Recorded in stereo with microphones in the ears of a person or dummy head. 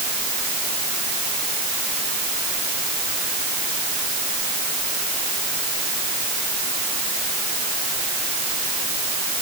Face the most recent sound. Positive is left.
No sound to turn to.